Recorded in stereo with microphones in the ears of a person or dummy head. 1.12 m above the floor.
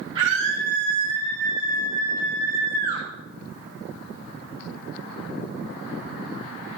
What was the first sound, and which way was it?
A scream, 25° right (ahead or behind).